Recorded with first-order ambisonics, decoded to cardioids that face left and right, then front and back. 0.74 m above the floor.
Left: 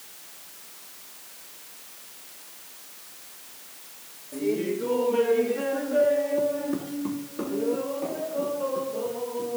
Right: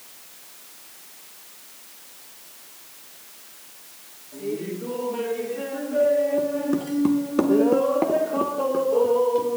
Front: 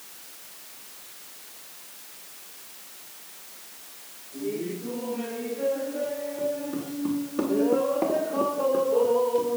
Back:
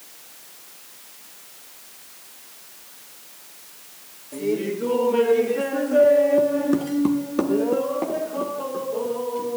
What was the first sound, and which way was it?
Laughter, 155° left.